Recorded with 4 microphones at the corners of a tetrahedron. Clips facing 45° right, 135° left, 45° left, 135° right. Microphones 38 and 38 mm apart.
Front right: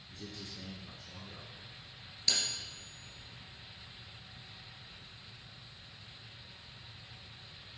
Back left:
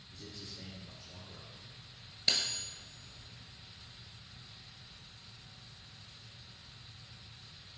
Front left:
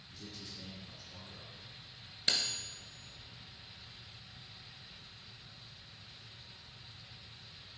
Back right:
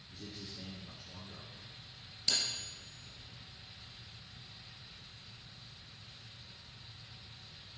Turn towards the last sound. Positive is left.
turn(degrees=70)